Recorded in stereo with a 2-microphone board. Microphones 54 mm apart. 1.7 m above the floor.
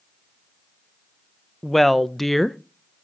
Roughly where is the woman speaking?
Centre.